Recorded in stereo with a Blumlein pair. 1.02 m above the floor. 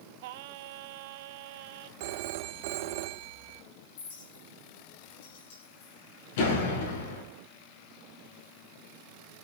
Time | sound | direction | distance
0.2 | singing | 50° right | 1.1 m
2.0 | a phone ringing | 50° right | 1.1 m
4.0 | a clink | 55° left | 8.5 m
6.4 | a door slam | 55° left | 7.5 m